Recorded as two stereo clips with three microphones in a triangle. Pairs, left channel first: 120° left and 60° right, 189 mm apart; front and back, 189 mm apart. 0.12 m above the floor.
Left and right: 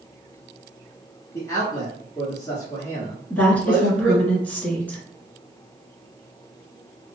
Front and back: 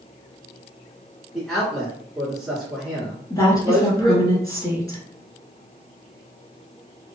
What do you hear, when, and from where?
1.3 s a man speaking: 90° left, 1.1 m
3.3 s a woman speaking: 45° left, 1.2 m